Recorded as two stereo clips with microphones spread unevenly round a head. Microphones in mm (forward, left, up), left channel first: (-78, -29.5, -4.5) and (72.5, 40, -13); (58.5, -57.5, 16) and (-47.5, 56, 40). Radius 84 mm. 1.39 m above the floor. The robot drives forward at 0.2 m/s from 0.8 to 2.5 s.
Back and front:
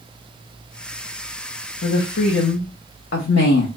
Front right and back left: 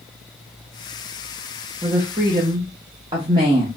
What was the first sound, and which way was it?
A woman speaking, 165° right.